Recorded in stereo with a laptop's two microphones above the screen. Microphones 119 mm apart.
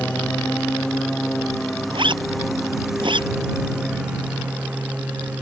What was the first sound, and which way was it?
A lawn mower, 10° left (ahead or behind).